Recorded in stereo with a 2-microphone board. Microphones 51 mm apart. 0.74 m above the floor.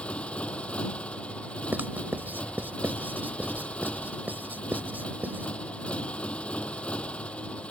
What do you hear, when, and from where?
0.0 s a motorcycle: 20° left (ahead or behind)
1.7 s writing: 35° right (ahead or behind)